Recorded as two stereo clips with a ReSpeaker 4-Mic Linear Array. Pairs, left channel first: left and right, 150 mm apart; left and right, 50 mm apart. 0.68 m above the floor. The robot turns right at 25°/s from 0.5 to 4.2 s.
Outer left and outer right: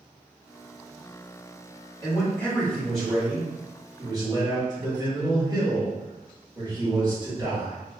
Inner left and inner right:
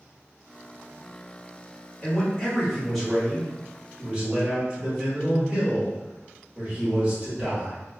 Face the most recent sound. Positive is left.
turn(degrees=-150)